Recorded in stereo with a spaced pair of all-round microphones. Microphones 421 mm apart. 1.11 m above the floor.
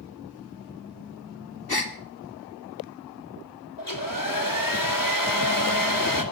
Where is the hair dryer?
50° left (ahead or behind), 2.5 m.